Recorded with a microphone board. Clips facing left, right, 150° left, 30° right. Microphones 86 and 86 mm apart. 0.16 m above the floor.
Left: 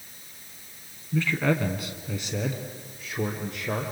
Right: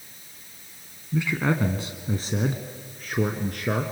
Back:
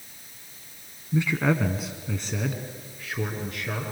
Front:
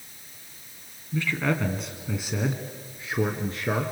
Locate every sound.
1.1 s a man speaking: 160° right, 1.4 m; by 3.9 s 75° right, 2 m